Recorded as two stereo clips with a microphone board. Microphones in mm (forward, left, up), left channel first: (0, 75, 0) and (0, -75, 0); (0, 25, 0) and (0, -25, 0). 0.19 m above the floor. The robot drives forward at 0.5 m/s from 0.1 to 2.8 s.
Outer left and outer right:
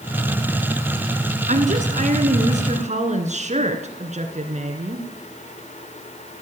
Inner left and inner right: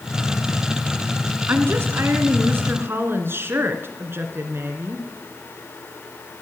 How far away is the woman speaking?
About 2.0 m.